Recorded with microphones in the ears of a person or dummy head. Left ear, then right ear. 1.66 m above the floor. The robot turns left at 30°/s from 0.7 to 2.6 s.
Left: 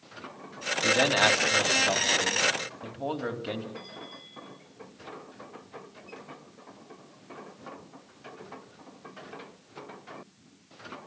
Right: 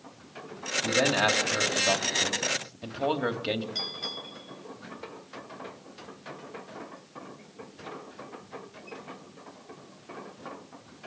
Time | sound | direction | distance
0.8 | a man speaking | 30° left | 3.5 m
3.8 | a bell | 85° right | 7 m